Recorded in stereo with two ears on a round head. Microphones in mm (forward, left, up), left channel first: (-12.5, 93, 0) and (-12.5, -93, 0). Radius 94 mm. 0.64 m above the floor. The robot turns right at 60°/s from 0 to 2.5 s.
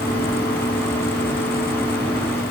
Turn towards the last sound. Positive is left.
No sound to turn to.